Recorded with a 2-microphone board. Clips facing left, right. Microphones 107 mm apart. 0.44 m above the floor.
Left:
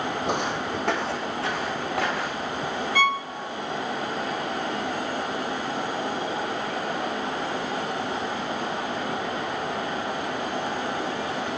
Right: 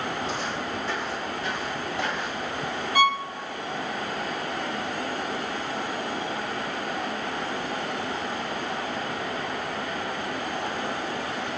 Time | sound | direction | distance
0.3 | footsteps | 65° left (ahead or behind) | 0.9 m
3.0 | a violin | 15° right (ahead or behind) | 1.0 m